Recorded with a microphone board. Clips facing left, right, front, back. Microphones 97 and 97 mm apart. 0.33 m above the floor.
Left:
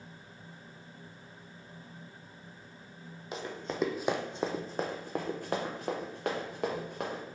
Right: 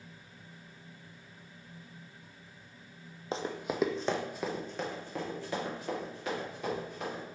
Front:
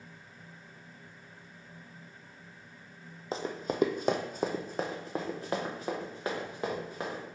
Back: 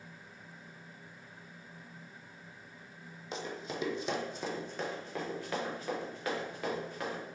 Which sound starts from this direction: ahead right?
Running footsteps, at 3.3 s.